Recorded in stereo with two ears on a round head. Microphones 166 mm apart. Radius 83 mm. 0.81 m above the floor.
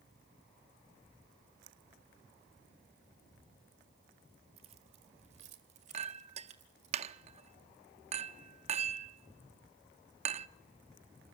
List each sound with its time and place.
4.6 s keys jangling: 35° right (ahead or behind), 1.7 m; by 6.9 s 40° right (ahead or behind), 3 m
5.9 s a clink: 35° right (ahead or behind), 0.6 m